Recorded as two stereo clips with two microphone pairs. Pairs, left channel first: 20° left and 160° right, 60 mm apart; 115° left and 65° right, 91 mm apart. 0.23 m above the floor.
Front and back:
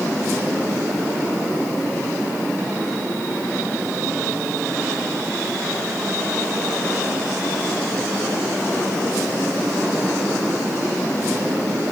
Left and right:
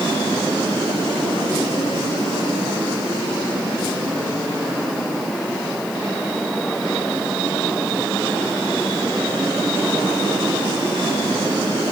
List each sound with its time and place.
Only background noise.